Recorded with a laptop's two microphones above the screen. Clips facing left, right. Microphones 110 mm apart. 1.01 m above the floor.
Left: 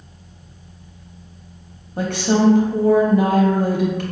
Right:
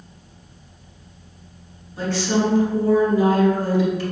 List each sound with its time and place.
2.0 s a woman speaking: 55° left (ahead or behind), 0.9 m